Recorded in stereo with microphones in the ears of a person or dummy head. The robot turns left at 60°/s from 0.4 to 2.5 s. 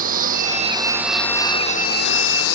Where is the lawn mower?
45° right (ahead or behind); by 2.6 s 85° left.